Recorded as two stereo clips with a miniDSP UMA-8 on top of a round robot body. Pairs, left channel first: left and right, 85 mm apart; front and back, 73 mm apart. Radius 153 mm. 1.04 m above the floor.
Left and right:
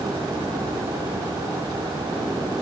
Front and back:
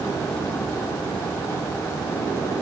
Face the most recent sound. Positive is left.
No sound to turn to.